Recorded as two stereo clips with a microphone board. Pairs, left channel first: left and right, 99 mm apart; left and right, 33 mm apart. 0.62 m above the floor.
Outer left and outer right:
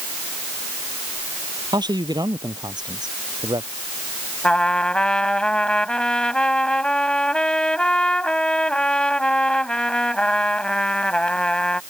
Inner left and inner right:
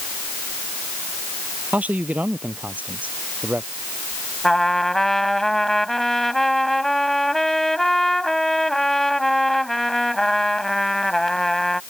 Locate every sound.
1.7 s a man speaking: 45° right (ahead or behind)
4.4 s a trumpet: 10° left (ahead or behind)